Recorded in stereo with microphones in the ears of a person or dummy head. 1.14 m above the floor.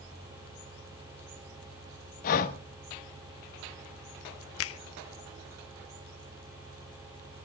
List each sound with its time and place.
2.2 s breathing: 45° left (ahead or behind), 1.3 m
4.6 s a finger snap: 70° left (ahead or behind), 0.8 m